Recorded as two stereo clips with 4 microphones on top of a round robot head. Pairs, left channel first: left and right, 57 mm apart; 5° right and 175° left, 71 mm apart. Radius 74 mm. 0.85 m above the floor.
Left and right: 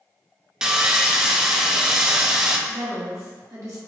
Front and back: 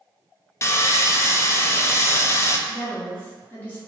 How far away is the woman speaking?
About 1.4 m.